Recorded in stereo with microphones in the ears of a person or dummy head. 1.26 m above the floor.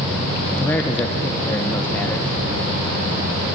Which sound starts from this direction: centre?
A man speaking, at 0.6 s.